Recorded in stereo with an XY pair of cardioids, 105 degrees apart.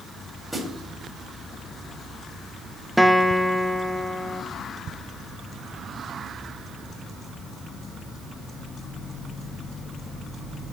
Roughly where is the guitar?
Ahead.